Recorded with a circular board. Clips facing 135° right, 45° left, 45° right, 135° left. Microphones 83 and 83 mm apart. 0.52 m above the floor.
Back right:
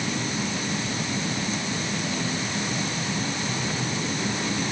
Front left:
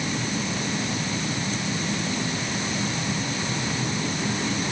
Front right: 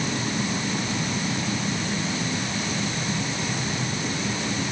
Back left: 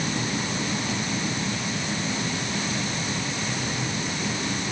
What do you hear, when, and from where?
Only background noise.